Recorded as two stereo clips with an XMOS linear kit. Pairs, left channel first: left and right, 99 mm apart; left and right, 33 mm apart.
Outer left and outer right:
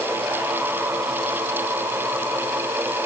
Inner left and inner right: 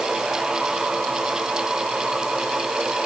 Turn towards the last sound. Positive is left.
No sound to turn to.